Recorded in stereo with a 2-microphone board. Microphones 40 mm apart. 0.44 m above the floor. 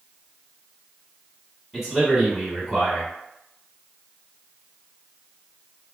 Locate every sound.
1.7 s a man speaking: 10° right (ahead or behind), 1.9 m